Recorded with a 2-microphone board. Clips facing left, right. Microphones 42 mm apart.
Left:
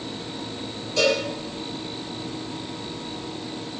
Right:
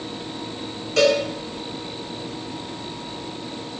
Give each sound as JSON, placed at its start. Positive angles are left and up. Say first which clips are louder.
{"t": 1.0, "sound": "a cowbell", "louder": "right 4 dB", "side_deg": -70, "distance_m": 2.5}